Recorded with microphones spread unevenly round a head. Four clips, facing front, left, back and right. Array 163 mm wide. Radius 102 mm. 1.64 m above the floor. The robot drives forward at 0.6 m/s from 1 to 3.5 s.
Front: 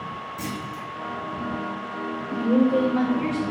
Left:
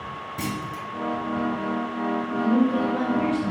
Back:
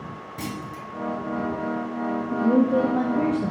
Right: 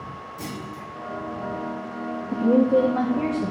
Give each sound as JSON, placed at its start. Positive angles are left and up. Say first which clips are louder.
{"t": 0.4, "sound": "a clunk", "louder": "left 5 dB, back 2 dB", "azimuth_deg": 85, "distance_m": 1.1}
{"t": 2.3, "sound": "a woman speaking", "louder": "right 4 dB, even", "azimuth_deg": -105, "distance_m": 0.6}